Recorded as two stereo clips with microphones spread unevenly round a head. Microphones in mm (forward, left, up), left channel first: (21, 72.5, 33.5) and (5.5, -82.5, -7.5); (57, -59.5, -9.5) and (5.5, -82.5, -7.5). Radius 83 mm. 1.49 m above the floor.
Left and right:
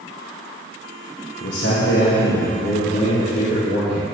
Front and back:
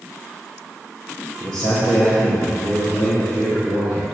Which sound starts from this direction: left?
A man speaking, at 1.4 s.